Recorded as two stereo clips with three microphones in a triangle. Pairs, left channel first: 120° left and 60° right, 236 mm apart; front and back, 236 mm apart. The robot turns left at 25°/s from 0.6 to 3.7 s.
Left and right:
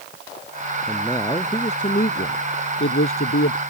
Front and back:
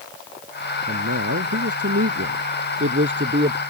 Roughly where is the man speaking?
Behind.